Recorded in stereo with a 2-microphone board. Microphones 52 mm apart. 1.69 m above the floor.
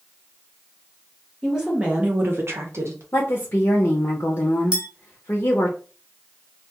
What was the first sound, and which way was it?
A woman speaking, 5° right (ahead or behind).